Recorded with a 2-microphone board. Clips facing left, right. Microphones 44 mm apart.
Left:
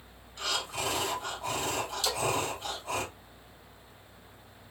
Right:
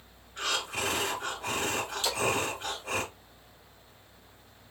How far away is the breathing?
About 2.5 m.